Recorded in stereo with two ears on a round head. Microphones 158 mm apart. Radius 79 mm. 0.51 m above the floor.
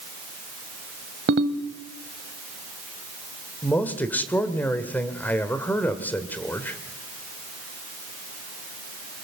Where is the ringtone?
65° right (ahead or behind), 1.3 m.